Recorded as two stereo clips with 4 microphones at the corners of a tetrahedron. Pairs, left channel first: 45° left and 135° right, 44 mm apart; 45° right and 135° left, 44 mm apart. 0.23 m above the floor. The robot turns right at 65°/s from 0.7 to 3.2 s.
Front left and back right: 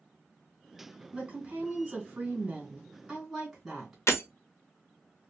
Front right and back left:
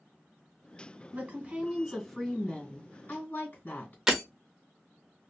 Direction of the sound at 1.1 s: 170° left.